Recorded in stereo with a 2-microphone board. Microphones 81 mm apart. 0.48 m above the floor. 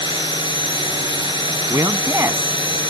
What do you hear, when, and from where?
0.0 s a drone: 80° left
1.7 s a man speaking: 35° right (ahead or behind)